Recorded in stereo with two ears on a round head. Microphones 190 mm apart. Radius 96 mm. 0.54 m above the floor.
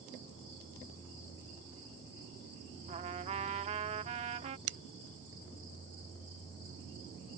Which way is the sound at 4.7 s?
60° right (ahead or behind).